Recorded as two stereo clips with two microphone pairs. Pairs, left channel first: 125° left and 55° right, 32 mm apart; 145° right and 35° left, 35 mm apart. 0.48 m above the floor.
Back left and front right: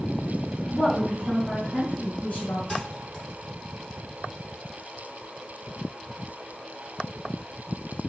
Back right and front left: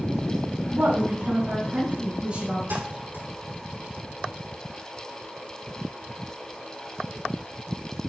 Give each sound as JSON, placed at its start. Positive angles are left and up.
{"t": 0.7, "sound": "a woman speaking", "azimuth_deg": 60, "distance_m": 3.5}
{"t": 2.7, "sound": "a thud", "azimuth_deg": 55, "distance_m": 4.5}